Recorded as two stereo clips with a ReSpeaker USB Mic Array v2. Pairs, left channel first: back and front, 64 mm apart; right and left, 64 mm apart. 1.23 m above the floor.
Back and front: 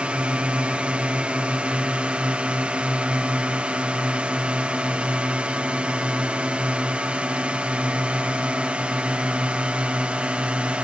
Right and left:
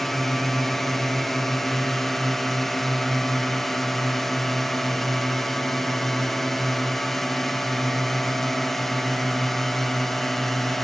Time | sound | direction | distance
0.0 | a drone | 15° right | ?